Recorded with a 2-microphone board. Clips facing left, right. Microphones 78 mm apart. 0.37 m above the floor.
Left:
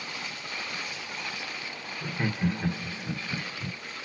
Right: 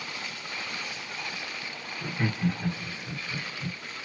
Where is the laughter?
5° left (ahead or behind), 1.2 m; by 3.8 s 65° left (ahead or behind), 2.5 m.